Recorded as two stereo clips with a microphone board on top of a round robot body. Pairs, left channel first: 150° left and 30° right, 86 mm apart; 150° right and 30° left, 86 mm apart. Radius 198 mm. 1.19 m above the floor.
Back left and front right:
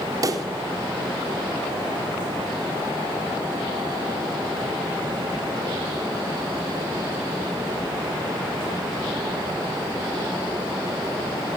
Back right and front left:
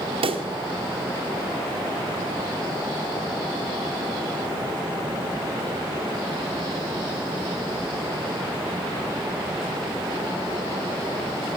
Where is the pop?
20° left, 1.6 m.